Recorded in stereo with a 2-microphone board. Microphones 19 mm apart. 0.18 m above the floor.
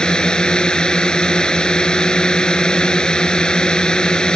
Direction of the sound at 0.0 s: 55° left (ahead or behind).